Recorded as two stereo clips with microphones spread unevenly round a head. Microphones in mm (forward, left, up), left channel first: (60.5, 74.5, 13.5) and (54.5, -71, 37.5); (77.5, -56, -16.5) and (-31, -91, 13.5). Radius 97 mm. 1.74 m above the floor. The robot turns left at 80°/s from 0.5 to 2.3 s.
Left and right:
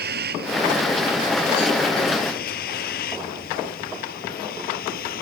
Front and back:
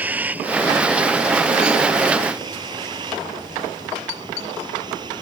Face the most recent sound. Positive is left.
turn(degrees=130)